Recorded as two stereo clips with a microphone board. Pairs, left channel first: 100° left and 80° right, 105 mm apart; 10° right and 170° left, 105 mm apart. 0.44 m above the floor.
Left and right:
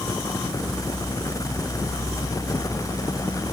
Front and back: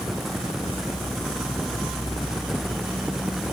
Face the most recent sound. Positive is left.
No sound to turn to.